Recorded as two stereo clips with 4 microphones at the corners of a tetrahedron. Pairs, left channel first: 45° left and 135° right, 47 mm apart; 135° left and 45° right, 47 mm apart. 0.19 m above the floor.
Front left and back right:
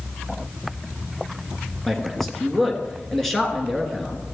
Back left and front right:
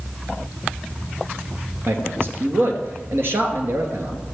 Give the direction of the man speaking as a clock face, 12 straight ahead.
1 o'clock.